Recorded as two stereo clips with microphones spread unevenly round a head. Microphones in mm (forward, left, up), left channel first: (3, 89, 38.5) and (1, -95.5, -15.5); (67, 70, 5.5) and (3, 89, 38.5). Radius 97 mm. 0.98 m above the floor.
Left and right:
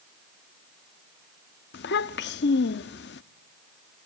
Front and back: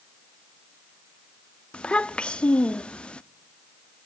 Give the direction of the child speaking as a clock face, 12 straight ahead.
10 o'clock.